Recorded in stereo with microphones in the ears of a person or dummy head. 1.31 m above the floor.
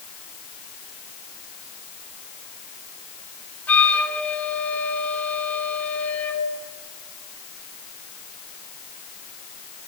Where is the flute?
10° left (ahead or behind), 4 m.